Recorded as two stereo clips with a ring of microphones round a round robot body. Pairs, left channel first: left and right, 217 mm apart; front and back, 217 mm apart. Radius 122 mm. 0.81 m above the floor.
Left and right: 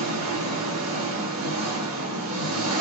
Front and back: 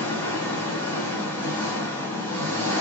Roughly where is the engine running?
Right.